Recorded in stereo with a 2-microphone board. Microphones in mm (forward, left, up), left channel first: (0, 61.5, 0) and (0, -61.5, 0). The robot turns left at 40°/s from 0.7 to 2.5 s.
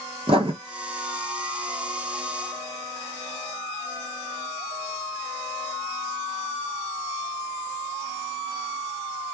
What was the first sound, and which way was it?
Writing, 50° right (ahead or behind).